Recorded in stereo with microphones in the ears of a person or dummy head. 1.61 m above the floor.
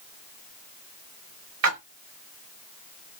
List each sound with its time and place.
1.6 s a splash: 70° right (ahead or behind), 1.3 m